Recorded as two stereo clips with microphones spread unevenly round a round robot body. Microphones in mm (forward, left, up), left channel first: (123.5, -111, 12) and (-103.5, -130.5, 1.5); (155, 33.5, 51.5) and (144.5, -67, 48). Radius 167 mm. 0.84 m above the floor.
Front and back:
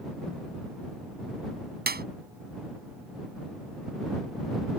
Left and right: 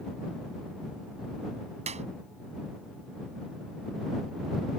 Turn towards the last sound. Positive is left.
turn(degrees=-130)